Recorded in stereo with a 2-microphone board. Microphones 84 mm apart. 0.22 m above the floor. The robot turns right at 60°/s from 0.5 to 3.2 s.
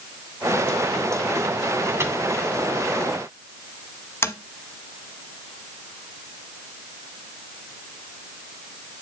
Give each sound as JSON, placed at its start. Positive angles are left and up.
{"t": 2.0, "sound": "a microwave", "side_deg": -35, "distance_m": 1.8}
{"t": 4.2, "sound": "tapping", "side_deg": 30, "distance_m": 1.0}